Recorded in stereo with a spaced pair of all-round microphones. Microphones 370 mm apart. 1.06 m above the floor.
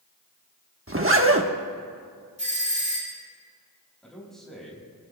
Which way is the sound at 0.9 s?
35° right (ahead or behind).